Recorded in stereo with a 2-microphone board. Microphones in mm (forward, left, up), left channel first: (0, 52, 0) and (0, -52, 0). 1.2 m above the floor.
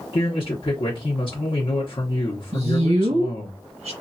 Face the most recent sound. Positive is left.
turn(degrees=-80)